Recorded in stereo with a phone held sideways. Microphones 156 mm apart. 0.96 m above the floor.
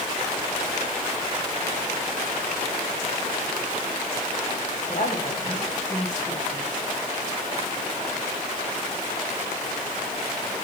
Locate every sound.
4.9 s a woman speaking: 55° left (ahead or behind), 7.5 m